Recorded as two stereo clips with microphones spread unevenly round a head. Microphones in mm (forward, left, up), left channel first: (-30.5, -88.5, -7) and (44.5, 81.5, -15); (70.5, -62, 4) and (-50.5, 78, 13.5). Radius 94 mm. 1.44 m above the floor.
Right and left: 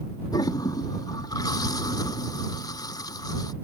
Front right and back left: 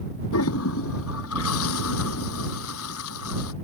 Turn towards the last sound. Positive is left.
turn(degrees=-45)